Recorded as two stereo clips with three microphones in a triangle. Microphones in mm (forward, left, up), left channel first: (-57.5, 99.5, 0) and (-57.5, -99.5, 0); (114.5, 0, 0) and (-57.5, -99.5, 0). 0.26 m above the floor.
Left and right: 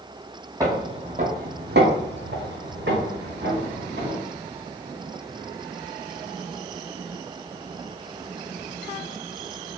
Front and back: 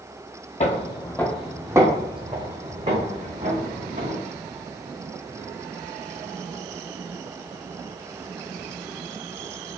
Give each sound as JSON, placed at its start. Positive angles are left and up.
{"t": 0.6, "sound": "footsteps", "azimuth_deg": -20, "distance_m": 0.6}